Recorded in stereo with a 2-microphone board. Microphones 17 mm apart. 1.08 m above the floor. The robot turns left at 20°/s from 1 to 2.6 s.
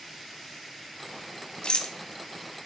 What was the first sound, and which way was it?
A rattle, 70° left (ahead or behind).